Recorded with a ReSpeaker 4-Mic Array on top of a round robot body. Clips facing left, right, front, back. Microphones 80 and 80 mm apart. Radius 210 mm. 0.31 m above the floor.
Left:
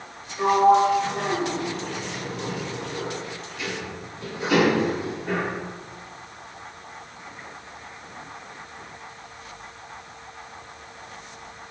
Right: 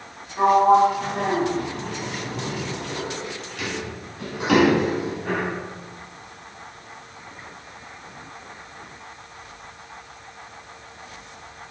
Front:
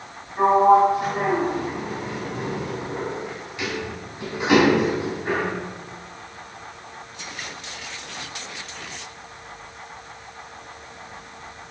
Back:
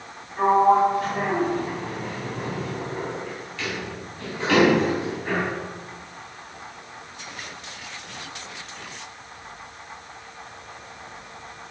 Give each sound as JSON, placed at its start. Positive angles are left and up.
{"t": 0.4, "sound": "a sliding door", "azimuth_deg": -75, "distance_m": 4.0}